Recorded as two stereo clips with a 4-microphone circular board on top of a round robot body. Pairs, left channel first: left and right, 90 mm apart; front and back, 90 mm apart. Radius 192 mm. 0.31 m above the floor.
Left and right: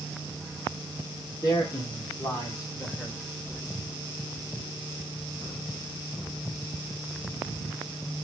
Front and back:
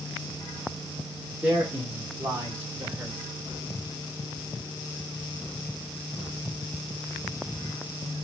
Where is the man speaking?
110° left, 2.0 m; by 3.2 s 150° left, 1.7 m.